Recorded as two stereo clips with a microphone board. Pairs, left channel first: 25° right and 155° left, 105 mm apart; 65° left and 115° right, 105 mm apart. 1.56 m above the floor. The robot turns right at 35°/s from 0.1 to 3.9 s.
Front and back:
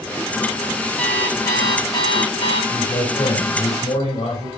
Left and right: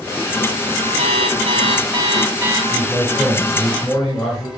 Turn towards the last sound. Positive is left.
turn(degrees=5)